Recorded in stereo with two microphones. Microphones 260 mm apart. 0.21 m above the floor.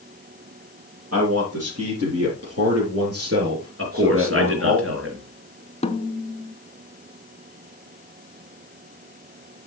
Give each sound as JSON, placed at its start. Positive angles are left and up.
{"t": 1.1, "sound": "a man speaking", "side_deg": -70, "distance_m": 6.0}
{"t": 3.8, "sound": "a man speaking", "side_deg": -55, "distance_m": 4.0}
{"t": 5.8, "sound": "a snare drum", "side_deg": 25, "distance_m": 0.8}